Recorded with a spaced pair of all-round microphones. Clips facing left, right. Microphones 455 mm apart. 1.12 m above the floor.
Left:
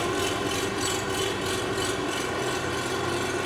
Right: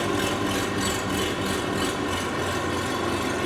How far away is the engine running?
About 1.9 m.